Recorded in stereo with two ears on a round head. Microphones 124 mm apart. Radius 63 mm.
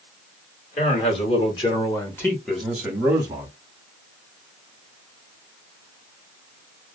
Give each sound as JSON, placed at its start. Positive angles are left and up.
{"t": 0.8, "sound": "a man speaking", "side_deg": 50, "distance_m": 1.5}